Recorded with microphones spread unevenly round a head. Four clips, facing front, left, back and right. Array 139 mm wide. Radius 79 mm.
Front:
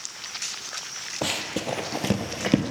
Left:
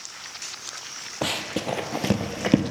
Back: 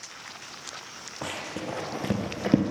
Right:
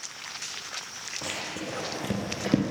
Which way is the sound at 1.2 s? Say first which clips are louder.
Left 8 dB, front 5 dB; 60° left.